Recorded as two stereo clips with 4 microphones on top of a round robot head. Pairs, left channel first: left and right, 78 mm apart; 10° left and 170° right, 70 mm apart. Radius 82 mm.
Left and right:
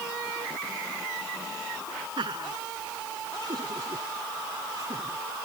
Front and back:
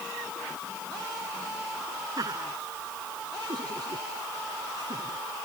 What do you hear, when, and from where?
2.2 s laughter: 125° right; by 5.5 s 145° right